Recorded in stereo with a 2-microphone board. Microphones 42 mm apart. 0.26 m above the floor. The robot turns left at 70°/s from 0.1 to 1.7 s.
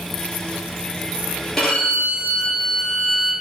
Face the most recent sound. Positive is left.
turn(degrees=0)  # may be behind; listen again after turning